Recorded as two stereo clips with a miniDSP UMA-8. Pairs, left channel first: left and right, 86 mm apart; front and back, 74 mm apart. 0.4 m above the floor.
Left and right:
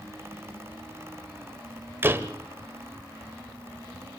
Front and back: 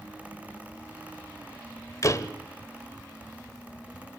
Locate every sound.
2.0 s a door slam: 30° right, 1.2 m